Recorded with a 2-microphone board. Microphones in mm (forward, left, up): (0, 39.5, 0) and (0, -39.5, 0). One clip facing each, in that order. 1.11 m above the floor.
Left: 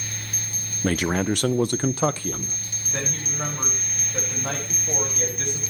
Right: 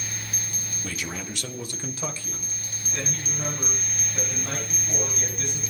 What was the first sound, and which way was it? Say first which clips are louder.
A man speaking: left 13 dB; 60° left (ahead or behind).